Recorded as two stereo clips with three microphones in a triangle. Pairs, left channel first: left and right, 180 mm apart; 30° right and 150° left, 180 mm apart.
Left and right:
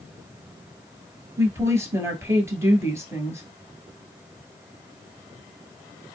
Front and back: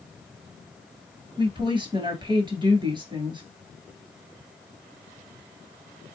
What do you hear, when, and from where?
1.4 s a woman speaking: 160° right, 1.5 m